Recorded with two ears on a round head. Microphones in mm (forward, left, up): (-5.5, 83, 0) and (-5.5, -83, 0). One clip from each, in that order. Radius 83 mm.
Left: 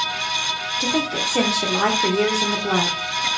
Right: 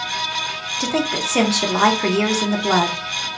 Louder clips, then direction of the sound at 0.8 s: Right 2 dB; 30° right (ahead or behind).